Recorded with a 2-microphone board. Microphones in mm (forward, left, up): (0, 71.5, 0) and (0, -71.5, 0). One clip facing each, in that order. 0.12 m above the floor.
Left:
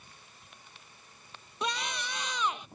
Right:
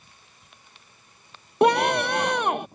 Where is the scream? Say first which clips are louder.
Right 17 dB; 65° right (ahead or behind); by 2.7 s 60° right (ahead or behind).